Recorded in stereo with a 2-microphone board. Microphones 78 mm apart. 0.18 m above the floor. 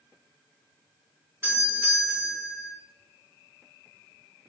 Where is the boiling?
No boiling in this recording.